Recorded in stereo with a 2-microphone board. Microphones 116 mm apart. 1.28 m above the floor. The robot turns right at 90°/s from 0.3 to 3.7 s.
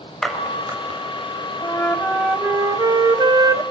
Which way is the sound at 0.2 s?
5° left (ahead or behind).